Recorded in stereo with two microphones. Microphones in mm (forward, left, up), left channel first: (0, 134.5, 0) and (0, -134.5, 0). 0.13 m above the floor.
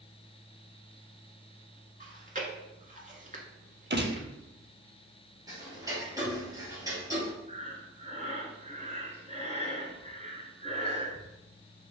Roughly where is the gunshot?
Right.